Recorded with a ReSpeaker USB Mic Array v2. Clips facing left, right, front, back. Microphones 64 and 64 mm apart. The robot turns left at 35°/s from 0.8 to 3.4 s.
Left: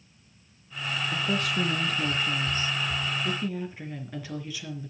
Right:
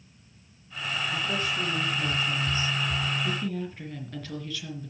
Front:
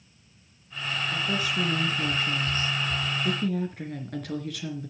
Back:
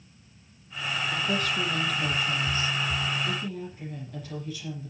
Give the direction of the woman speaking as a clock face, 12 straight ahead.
9 o'clock.